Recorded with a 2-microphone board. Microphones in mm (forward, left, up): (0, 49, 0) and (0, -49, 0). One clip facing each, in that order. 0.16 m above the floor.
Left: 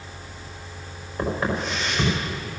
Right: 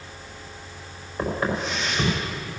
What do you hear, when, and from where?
1.2 s footsteps: 5° left (ahead or behind), 6 m